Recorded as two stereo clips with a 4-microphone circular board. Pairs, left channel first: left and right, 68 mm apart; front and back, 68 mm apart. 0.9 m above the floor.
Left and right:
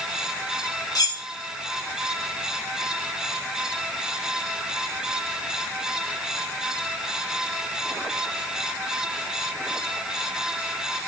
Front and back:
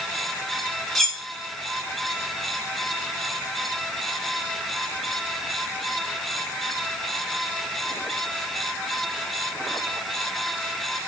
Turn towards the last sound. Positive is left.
turn(degrees=85)